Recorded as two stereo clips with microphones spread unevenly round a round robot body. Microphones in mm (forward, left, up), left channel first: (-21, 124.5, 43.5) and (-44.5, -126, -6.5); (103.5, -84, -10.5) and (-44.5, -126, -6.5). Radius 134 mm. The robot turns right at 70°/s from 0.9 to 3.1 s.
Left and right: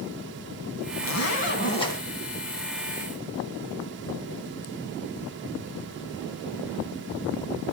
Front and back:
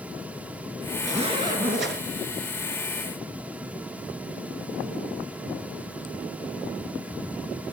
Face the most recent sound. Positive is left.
turn(degrees=-115)